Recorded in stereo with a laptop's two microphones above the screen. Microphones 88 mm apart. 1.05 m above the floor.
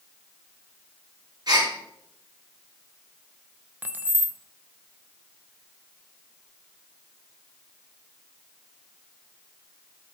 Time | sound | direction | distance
1.5 | a gasp | 50° right (ahead or behind) | 5 m
3.8 | keys jangling | 20° right (ahead or behind) | 0.7 m